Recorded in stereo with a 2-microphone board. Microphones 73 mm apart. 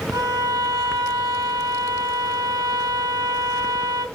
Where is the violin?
65° right (ahead or behind), 0.6 m.